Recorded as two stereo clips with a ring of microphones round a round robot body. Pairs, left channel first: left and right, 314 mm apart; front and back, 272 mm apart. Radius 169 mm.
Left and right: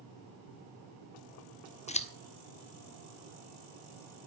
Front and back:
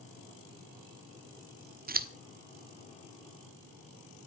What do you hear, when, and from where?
1.9 s scissors: 145° left, 1.3 m